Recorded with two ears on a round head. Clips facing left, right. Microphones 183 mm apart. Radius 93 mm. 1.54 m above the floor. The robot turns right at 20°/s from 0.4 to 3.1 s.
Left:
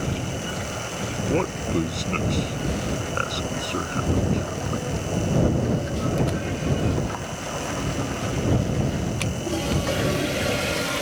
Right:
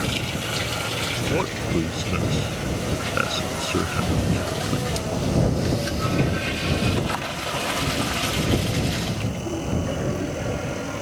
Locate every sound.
1.2 s a man speaking: 10° left (ahead or behind); by 5.0 s 25° right (ahead or behind)